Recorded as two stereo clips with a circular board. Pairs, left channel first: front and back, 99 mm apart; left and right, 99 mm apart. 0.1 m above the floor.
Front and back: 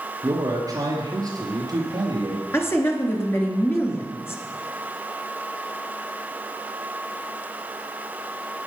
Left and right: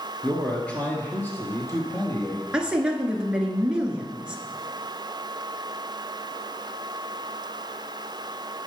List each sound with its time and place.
0.2 s a man speaking: 170° left, 1.4 m; by 2.4 s 140° left, 2.5 m
2.5 s a woman speaking: 20° right, 1.2 m